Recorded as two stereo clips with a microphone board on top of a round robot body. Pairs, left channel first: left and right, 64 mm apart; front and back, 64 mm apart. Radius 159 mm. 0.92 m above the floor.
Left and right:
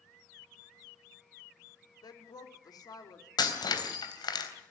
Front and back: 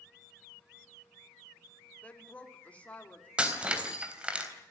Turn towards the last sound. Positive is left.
turn(degrees=105)